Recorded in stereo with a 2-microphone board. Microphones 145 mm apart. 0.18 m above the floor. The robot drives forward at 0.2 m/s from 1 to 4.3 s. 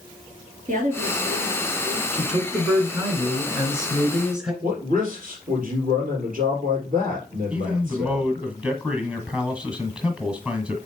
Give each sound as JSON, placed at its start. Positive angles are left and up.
{"t": 0.7, "sound": "a woman speaking", "side_deg": -60, "distance_m": 3.0}
{"t": 2.1, "sound": "a man speaking", "side_deg": -5, "distance_m": 2.0}
{"t": 4.6, "sound": "a man speaking", "side_deg": -65, "distance_m": 4.0}
{"t": 7.5, "sound": "a man speaking", "side_deg": -5, "distance_m": 1.6}